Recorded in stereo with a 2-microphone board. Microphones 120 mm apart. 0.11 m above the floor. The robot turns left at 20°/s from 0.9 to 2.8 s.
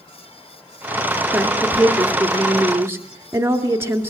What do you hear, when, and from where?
1.3 s a woman speaking: 5° right (ahead or behind), 1.7 m; by 4.1 s 20° right (ahead or behind), 1.7 m